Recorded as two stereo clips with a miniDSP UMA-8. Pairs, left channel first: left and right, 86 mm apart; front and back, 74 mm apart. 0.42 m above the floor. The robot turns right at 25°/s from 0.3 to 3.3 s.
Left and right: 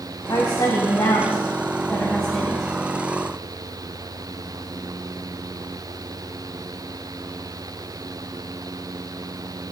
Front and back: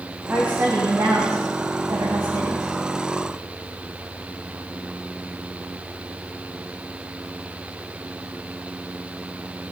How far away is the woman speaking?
About 3.5 m.